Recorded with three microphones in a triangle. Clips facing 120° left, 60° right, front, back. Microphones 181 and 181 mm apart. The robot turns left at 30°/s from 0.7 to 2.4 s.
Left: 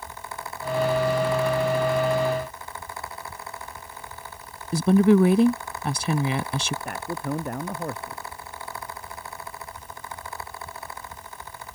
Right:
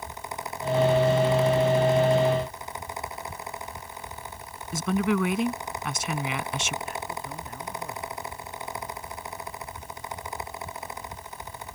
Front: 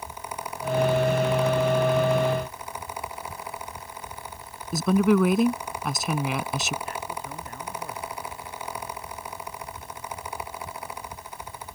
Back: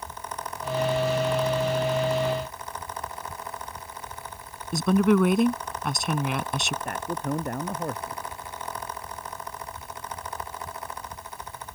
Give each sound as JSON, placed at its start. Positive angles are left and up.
{"t": 4.7, "sound": "a woman speaking", "azimuth_deg": 90}
{"t": 6.8, "sound": "a man speaking", "azimuth_deg": 150}